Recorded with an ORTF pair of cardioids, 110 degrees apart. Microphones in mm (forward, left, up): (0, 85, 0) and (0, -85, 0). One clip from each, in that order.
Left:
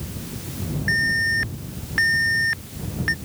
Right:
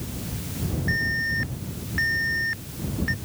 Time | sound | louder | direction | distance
0.9 | an alarm | left 5 dB | 45° left | ?